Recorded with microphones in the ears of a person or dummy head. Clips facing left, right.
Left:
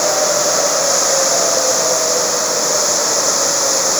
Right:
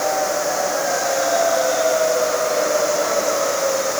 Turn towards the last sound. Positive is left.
turn(degrees=85)